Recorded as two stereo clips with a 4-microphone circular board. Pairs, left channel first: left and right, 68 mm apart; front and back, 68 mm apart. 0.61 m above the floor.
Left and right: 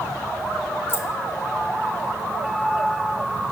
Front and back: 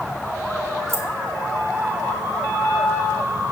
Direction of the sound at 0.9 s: 135° left.